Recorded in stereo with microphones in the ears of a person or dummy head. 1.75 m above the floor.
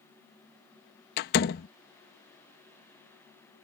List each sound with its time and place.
1.2 s a door slam: 50° left (ahead or behind)